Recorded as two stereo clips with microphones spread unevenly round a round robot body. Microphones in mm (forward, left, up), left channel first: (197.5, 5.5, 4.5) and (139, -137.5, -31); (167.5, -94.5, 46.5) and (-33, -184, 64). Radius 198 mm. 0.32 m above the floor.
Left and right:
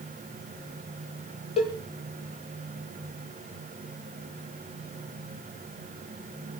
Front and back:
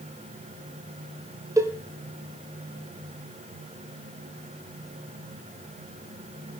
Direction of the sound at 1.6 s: 130° left.